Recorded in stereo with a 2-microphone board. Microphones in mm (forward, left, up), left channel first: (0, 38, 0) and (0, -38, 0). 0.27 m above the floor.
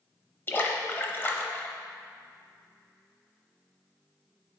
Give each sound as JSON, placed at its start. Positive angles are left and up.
{"t": 0.5, "sound": "a splash", "side_deg": 30, "distance_m": 0.7}